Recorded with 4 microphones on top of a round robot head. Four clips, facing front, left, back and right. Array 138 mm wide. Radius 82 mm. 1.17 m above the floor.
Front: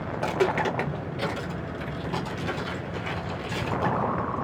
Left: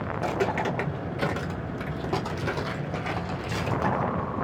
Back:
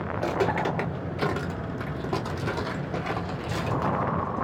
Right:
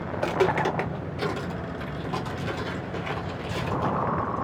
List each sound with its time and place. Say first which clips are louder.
0.1 s footsteps: right 4 dB, front 1 dB; 70° right, 1.3 m; by 4.1 s 135° left, 3.5 m